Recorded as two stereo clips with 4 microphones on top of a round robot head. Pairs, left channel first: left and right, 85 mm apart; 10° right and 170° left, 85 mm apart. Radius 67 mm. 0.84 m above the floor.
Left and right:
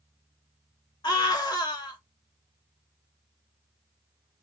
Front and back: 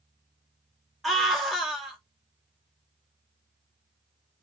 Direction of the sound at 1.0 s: 85° left.